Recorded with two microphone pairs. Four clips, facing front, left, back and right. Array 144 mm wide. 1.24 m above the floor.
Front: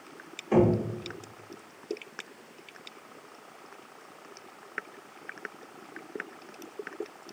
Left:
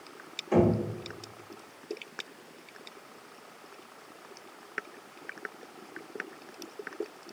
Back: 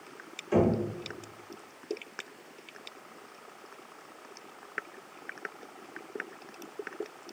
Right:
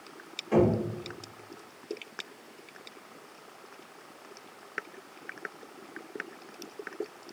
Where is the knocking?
5° left, 1.9 m.